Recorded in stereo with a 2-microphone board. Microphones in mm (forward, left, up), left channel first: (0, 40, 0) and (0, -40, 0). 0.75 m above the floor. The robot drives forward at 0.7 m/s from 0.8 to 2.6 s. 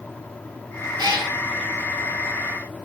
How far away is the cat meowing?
About 3.5 m.